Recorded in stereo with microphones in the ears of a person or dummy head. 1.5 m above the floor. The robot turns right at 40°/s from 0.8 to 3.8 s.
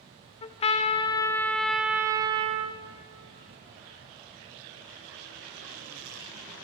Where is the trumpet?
145° left, 0.5 m; by 2.8 s 135° right, 0.5 m.